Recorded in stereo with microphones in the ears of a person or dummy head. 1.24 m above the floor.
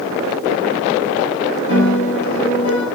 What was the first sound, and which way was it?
A piano, 60° left (ahead or behind).